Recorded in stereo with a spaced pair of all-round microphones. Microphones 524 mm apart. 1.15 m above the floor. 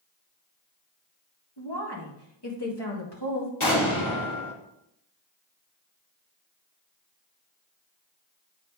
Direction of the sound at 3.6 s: 65° left (ahead or behind).